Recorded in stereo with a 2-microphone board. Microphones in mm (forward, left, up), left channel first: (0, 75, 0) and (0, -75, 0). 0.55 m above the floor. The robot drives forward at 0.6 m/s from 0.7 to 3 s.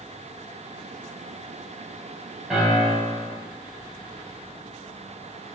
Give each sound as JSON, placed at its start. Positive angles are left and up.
{"t": 2.5, "sound": "a piano", "side_deg": -5, "distance_m": 4.0}